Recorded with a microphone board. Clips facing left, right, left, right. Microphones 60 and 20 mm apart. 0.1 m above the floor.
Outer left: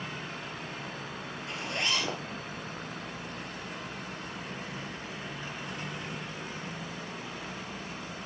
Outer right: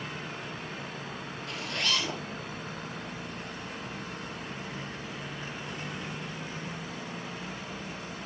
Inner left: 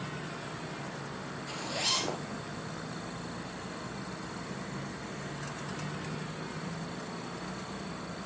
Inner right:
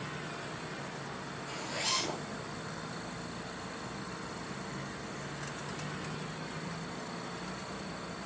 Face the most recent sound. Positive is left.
turn(degrees=25)  # may be behind; listen again after turning